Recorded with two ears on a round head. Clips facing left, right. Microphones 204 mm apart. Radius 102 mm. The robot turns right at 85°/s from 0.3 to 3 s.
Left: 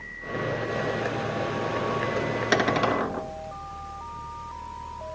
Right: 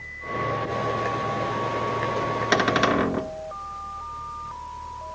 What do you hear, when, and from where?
2.5 s a cupboard door: 175° left, 1.3 m; by 3.3 s 140° right, 1.3 m